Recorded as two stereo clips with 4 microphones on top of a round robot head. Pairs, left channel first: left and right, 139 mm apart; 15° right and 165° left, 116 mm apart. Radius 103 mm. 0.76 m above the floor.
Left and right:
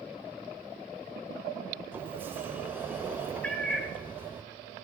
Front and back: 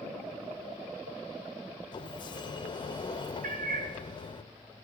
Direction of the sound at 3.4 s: 170° left.